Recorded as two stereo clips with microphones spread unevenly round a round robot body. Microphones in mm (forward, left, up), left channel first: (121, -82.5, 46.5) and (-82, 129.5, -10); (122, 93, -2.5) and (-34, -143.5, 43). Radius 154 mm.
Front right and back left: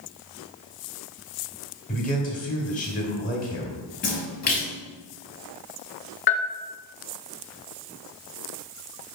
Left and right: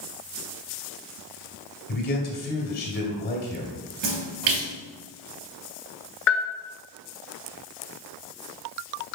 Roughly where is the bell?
Ahead.